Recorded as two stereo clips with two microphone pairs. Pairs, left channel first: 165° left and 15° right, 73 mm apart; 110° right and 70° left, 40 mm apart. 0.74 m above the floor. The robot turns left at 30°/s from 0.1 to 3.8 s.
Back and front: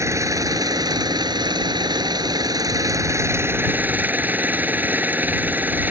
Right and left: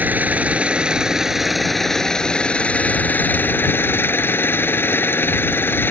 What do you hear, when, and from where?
0.0 s an engine running: 30° left; by 5.9 s 80° right